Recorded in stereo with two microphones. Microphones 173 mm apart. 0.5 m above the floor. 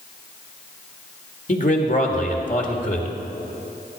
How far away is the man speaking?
About 1.7 m.